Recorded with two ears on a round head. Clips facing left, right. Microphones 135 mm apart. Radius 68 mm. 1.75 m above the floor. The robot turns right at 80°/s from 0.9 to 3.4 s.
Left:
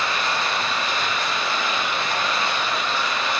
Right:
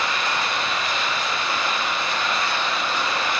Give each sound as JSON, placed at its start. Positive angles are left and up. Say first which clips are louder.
{"t": 0.0, "sound": "running water", "louder": "even", "azimuth_deg": 30, "distance_m": 0.8}